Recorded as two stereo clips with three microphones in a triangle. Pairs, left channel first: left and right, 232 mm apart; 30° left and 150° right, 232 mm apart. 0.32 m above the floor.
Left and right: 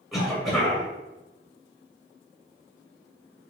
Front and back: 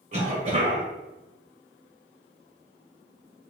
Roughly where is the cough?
Behind.